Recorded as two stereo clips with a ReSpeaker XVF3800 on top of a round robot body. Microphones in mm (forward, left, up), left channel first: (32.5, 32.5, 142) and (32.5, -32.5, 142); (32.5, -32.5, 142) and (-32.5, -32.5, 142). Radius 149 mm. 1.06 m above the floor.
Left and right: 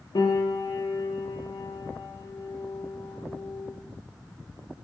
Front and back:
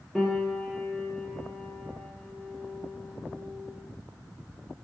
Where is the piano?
90° left, 0.6 m.